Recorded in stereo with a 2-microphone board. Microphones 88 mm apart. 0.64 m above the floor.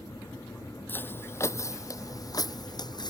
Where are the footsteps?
25° left (ahead or behind); by 3.1 s 55° left (ahead or behind).